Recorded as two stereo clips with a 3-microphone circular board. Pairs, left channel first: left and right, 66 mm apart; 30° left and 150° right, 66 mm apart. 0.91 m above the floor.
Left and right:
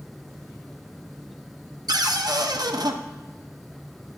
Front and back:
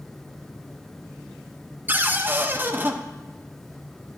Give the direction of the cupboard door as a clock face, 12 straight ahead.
3 o'clock.